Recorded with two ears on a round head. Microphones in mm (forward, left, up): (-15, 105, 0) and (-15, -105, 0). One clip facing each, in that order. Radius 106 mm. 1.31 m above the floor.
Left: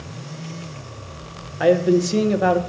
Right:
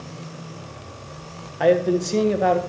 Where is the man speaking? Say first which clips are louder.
Left 2 dB; 5° left (ahead or behind), 1.3 m.